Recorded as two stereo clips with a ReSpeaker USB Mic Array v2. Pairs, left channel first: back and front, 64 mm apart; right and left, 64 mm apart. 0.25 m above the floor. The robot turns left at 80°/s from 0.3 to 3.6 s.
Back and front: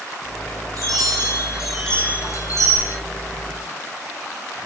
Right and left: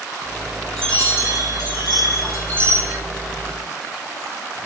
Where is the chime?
10° right, 5 m; by 3.0 s 170° left, 5 m.